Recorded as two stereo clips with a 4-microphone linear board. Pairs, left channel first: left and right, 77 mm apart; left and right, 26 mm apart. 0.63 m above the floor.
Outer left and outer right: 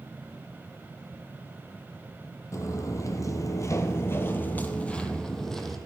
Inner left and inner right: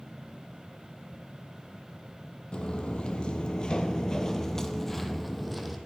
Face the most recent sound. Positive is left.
turn(degrees=5)  # may be behind; listen again after turning